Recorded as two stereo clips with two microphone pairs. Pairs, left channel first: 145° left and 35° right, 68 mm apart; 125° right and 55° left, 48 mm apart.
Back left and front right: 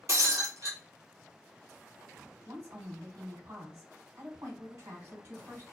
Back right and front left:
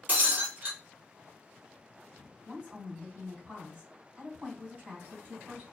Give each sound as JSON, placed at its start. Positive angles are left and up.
{"t": 0.1, "sound": "breaking glass", "azimuth_deg": 0, "distance_m": 2.0}
{"t": 2.5, "sound": "a woman speaking", "azimuth_deg": -10, "distance_m": 2.5}